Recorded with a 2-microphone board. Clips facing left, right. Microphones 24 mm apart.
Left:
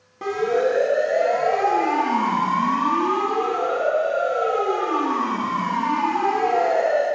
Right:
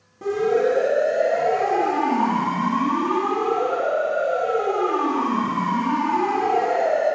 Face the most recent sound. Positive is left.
turn(degrees=70)  # may be behind; listen again after turning